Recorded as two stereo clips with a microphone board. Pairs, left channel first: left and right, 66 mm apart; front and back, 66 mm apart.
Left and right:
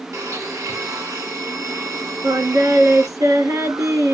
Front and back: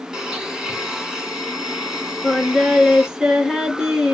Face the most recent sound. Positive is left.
turn(degrees=-95)